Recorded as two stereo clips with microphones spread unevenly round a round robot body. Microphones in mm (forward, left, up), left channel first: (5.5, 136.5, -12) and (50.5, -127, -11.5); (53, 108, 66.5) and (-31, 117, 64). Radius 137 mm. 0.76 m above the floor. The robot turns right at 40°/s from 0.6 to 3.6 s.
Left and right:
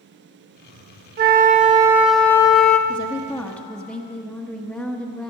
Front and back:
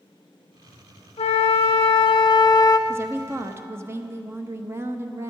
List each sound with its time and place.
1.2 s a flute: 30° right, 0.9 m; by 2.8 s 35° left, 0.9 m
2.9 s a woman speaking: 155° left, 0.9 m; by 5.3 s 175° right, 0.9 m